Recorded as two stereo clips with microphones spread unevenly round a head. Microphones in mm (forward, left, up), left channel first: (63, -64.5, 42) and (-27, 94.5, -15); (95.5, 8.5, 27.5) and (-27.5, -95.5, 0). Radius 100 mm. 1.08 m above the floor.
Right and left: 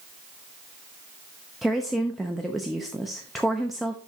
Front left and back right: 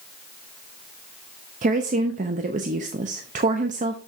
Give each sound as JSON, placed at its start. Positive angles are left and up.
{"t": 1.6, "sound": "a woman speaking", "azimuth_deg": -165, "distance_m": 0.6}